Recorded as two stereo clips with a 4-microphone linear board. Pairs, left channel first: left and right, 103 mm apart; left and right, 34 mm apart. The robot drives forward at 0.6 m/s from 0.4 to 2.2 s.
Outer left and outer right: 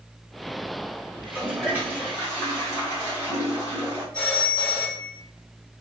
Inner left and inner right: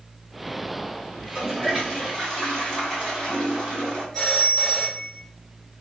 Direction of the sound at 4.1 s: 15° left (ahead or behind).